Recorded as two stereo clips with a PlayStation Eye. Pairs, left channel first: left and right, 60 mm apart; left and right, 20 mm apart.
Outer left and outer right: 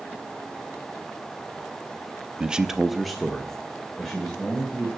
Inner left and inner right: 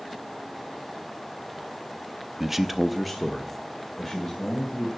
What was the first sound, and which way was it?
A man speaking, 15° right (ahead or behind).